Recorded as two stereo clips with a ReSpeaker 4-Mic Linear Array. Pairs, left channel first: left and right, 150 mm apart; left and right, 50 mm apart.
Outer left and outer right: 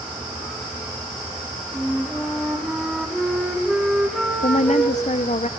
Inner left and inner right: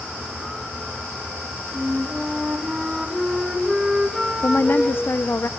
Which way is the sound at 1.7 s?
Centre (ahead or behind).